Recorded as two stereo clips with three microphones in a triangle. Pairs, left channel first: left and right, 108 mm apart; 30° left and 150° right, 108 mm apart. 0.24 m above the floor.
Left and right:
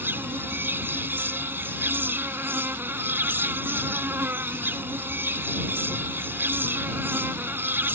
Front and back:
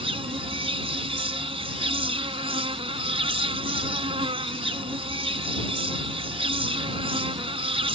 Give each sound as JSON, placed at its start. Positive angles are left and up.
{"t": 0.0, "sound": "an insect", "azimuth_deg": -160}